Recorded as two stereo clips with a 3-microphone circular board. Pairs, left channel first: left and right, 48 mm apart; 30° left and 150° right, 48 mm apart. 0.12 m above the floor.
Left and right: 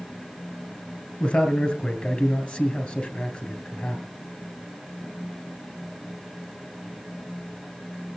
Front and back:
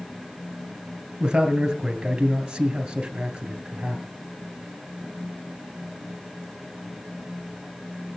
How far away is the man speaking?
About 2.5 m.